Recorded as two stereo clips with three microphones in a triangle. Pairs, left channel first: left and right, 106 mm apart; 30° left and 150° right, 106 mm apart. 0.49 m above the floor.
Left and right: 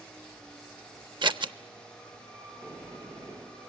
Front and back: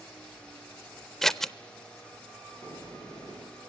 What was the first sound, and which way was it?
Scissors, 55° right.